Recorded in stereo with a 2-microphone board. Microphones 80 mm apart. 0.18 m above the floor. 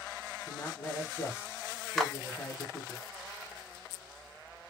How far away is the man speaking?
About 1.1 m.